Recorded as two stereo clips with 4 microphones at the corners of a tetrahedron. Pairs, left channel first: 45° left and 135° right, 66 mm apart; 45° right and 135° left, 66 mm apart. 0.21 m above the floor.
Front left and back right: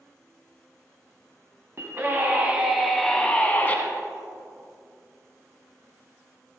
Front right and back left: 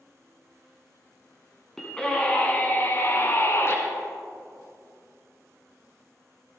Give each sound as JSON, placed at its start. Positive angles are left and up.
{"t": 1.8, "sound": "a scream", "azimuth_deg": -120, "distance_m": 1.9}